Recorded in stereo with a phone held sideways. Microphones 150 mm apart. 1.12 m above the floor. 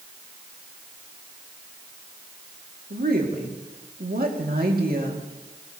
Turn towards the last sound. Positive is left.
turn(degrees=-85)